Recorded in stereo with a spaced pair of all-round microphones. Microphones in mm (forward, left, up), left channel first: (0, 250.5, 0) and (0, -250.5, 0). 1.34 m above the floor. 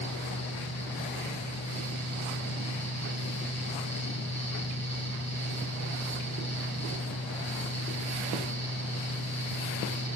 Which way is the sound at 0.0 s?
30° left (ahead or behind).